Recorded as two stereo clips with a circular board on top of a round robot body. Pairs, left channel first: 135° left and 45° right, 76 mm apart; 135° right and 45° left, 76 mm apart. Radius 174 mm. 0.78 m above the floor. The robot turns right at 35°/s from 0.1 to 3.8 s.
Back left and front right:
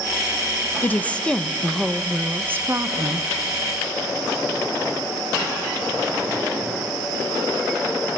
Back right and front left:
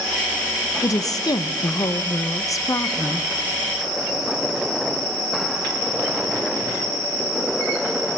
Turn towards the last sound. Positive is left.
turn(degrees=-60)